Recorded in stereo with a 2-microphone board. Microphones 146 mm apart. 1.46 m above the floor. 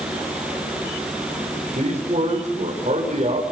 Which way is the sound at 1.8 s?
55° right (ahead or behind).